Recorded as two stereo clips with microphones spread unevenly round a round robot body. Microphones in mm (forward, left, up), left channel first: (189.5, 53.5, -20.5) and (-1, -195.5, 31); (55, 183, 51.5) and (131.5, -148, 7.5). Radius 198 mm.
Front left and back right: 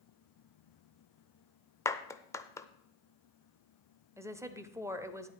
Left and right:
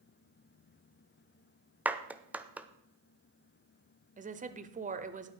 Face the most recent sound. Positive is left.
turn(degrees=-40)